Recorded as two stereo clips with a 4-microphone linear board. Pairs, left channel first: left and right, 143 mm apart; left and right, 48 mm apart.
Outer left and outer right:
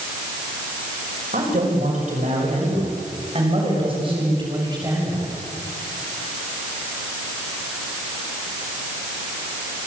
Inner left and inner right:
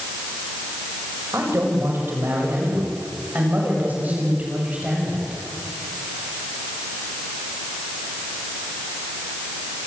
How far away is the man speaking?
About 6.5 m.